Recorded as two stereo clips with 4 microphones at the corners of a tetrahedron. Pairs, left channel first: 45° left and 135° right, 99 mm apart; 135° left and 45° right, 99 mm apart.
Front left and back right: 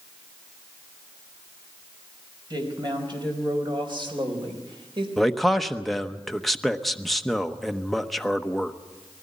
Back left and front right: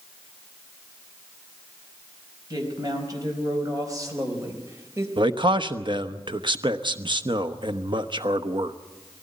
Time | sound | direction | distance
2.5 | a woman speaking | 95° right | 5 m
5.2 | a man speaking | 45° right | 0.9 m